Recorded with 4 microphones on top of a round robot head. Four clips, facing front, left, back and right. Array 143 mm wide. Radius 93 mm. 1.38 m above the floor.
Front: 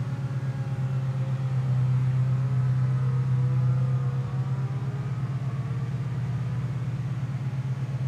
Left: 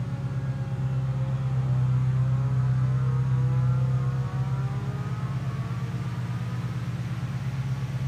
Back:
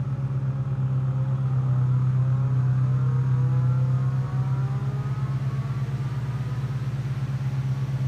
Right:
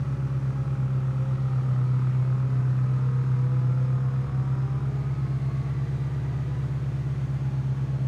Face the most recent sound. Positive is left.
turn(degrees=-110)